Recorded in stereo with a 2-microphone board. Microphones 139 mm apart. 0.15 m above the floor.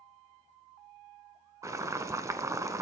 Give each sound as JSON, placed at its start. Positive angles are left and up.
{"t": 1.6, "sound": "boiling", "side_deg": -20, "distance_m": 1.1}